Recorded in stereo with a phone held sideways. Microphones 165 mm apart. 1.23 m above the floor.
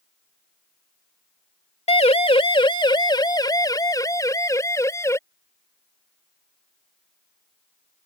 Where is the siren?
40° left (ahead or behind); by 5.2 s 20° left (ahead or behind).